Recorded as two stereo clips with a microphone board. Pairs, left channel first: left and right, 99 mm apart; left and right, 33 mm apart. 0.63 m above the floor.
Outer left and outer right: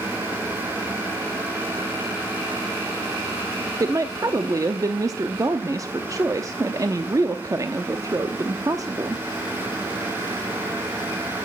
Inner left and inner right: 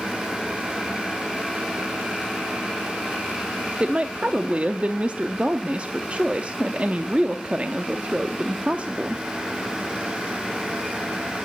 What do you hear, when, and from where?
3.8 s a woman speaking: 35° right (ahead or behind), 0.7 m